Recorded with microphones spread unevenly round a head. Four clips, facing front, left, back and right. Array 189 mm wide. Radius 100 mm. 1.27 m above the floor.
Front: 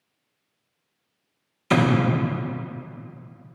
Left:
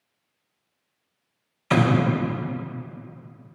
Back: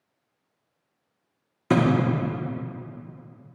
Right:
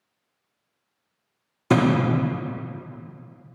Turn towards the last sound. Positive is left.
turn(degrees=-120)